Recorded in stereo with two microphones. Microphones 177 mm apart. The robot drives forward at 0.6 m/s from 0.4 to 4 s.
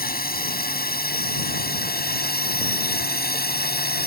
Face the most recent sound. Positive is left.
turn(degrees=65)  # may be behind; listen again after turning